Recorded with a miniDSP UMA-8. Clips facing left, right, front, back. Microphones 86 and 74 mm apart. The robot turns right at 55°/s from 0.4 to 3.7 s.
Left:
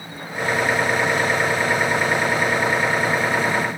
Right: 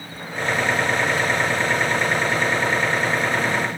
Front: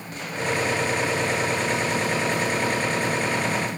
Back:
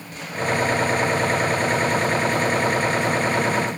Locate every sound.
Only background noise.